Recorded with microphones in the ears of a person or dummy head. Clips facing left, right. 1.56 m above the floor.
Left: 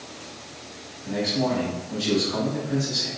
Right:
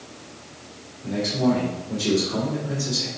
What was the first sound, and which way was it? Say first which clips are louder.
A man speaking: right 3 dB; 35° right (ahead or behind).